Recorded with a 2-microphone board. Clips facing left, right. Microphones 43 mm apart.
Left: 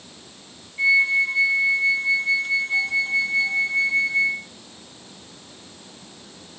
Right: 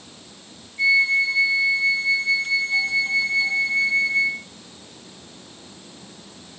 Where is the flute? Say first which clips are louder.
Even; 25° left (ahead or behind), 0.7 m.